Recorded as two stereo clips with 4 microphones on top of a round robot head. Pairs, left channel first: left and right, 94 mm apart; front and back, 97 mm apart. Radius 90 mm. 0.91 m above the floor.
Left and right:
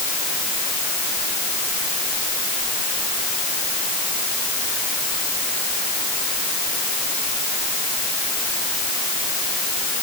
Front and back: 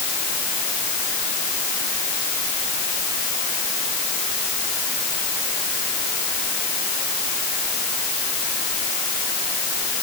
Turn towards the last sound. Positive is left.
No sound to turn to.